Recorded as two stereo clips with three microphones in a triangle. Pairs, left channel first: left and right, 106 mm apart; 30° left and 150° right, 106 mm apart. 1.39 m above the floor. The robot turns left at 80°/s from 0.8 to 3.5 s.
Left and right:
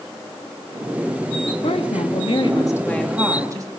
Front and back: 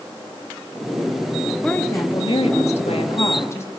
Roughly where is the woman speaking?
Behind left.